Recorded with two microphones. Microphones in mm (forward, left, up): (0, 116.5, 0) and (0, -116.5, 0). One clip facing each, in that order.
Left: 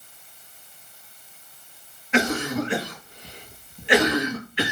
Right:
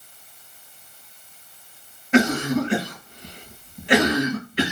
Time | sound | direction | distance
2.1 | a cough | 45° right (ahead or behind) | 1.3 m